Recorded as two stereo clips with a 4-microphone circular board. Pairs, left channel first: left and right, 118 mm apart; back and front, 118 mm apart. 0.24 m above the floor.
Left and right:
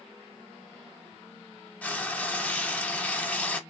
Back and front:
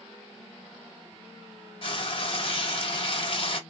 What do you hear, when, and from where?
1.8 s frying: 165° left, 0.7 m